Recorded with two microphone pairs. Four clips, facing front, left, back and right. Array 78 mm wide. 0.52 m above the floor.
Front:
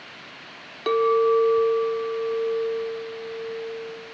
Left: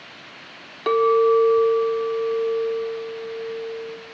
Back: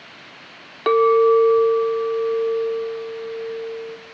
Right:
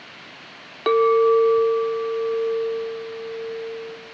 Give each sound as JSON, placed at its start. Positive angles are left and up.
{"t": 0.9, "sound": "a clink", "azimuth_deg": -160, "distance_m": 0.9}